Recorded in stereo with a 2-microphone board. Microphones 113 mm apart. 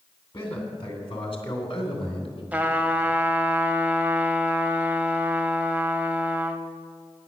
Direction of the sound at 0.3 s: 50° left (ahead or behind).